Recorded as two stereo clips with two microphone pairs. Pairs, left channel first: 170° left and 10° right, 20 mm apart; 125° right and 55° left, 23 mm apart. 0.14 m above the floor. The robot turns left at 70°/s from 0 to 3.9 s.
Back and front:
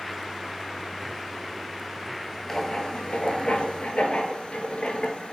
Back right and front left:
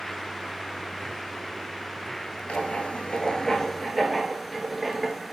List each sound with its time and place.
2.5 s writing: 125° right, 0.5 m; by 5.3 s 135° left, 0.5 m